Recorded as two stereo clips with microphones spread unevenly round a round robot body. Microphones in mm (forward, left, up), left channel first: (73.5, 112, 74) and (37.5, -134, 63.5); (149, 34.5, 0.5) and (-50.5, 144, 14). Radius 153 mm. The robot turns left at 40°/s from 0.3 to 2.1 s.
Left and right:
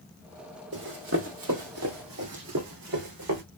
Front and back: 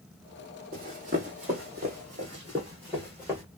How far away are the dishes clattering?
I don't hear dishes clattering.